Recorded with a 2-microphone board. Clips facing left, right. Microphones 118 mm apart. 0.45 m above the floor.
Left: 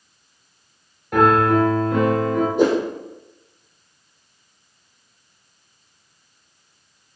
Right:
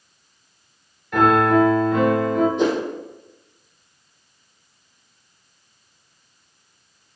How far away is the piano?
About 2.5 m.